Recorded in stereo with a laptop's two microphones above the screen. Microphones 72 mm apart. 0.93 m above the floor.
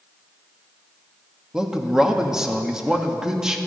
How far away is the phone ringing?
I don't hear a phone ringing.